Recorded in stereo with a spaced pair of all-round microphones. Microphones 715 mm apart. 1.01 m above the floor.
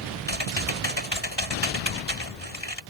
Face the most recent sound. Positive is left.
turn(degrees=35)  # may be behind; listen again after turning